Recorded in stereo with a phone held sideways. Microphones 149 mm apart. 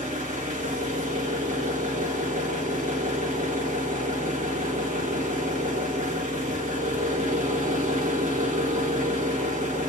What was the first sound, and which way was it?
An engine running, 70° right (ahead or behind).